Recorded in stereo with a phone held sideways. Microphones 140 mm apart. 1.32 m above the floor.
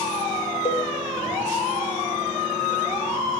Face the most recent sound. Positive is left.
turn(degrees=45)  # may be behind; listen again after turning